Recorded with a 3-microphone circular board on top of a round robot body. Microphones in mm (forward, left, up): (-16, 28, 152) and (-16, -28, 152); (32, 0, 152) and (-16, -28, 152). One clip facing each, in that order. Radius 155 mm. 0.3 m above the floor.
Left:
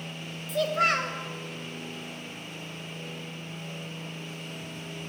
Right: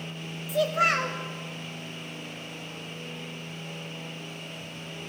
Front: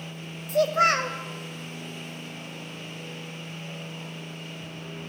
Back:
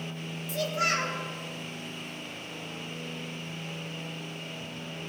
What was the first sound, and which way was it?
A child speaking, 5° right.